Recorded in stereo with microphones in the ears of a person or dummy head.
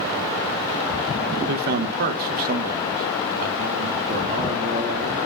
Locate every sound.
1.5 s a man speaking: 45° right (ahead or behind), 0.9 m; by 5.2 s 35° right (ahead or behind), 2.5 m